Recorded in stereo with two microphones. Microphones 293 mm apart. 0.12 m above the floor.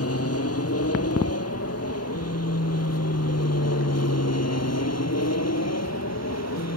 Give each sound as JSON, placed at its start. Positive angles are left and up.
{"t": 0.0, "sound": "an aircraft", "side_deg": 55}